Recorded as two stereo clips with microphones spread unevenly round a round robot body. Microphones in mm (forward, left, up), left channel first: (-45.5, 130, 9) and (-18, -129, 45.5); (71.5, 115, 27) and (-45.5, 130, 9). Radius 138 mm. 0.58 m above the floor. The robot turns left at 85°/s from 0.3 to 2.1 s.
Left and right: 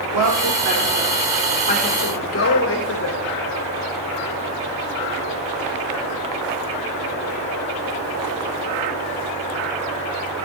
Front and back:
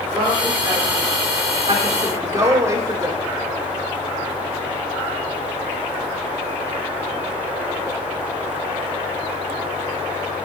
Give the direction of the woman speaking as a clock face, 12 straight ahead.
3 o'clock.